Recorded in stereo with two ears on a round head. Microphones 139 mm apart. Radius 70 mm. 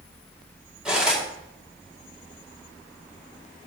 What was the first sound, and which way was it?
Cutlery clinking, 5° right (ahead or behind).